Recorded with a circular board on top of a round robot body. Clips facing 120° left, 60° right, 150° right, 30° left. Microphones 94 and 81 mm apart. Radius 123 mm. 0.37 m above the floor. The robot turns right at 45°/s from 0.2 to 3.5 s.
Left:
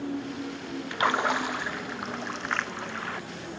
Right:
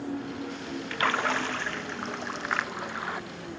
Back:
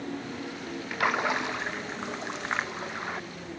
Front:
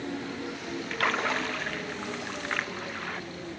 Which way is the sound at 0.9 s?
150° left.